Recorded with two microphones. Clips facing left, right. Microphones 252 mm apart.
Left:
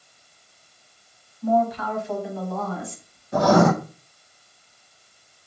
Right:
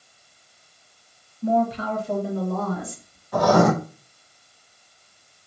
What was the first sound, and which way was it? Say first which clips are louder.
A woman speaking: even; 20° right (ahead or behind).